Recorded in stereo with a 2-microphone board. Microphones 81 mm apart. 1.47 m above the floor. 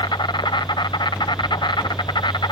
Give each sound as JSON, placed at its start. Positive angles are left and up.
{"t": 0.0, "sound": "an insect", "side_deg": 65}